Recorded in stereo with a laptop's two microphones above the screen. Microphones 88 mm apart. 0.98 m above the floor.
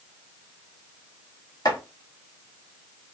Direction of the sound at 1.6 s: 50° left (ahead or behind).